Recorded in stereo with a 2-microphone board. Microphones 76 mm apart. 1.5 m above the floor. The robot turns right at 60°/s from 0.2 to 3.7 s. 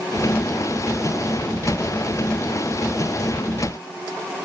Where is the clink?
No clink in this recording.